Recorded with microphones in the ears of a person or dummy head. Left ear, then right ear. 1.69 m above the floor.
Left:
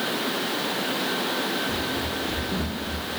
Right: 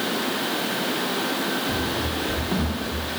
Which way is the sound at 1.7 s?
35° right (ahead or behind).